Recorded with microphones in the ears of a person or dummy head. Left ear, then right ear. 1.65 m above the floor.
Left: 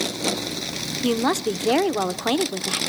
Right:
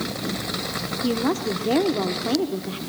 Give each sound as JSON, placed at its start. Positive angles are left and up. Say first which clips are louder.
{"t": 1.0, "sound": "a woman speaking", "louder": "left 3 dB", "side_deg": 45, "distance_m": 0.8}